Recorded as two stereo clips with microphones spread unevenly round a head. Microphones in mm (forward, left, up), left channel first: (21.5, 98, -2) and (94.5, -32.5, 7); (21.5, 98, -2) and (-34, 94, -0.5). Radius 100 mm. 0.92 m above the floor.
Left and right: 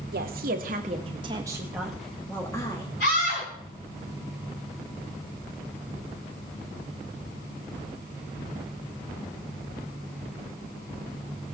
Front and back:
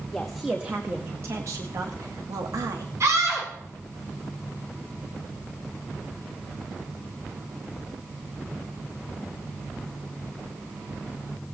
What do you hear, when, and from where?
0.1 s a woman speaking: 80° right, 1.1 m; by 2.9 s 175° right, 1.5 m
3.0 s a scream: 155° left, 8.5 m